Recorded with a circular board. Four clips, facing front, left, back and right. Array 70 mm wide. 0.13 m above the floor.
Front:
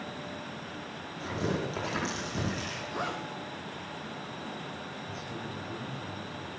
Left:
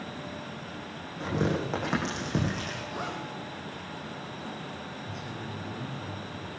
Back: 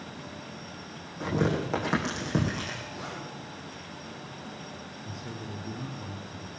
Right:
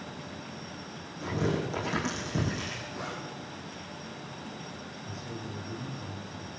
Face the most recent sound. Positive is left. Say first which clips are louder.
# left 2 dB, front 1 dB
turn(degrees=165)